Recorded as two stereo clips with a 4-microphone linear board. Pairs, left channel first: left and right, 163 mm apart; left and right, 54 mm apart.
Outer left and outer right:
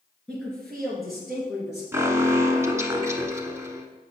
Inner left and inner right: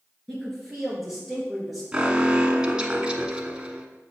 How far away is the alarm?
About 0.9 m.